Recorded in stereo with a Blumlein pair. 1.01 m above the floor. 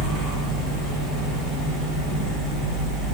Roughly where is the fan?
Ahead.